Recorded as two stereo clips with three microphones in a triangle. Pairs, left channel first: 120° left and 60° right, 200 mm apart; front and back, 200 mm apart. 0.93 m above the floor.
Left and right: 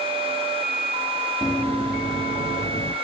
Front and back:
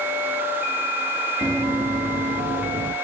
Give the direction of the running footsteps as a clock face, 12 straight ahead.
5 o'clock.